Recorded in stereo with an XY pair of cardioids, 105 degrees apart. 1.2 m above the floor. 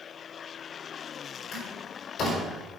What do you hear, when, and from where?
1.5 s a door slam: 65° left, 4 m